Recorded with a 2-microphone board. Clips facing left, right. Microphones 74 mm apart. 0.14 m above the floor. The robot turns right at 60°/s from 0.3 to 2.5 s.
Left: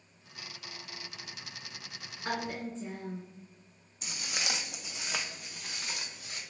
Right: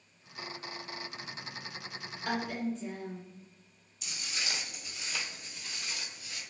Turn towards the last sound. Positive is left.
turn(degrees=40)  # may be behind; listen again after turning